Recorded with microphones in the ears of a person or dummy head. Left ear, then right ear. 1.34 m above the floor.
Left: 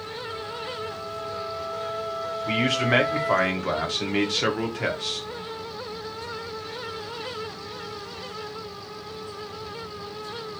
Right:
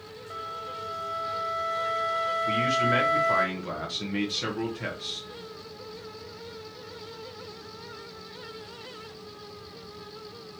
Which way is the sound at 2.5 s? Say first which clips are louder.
Left 3 dB; 20° left (ahead or behind).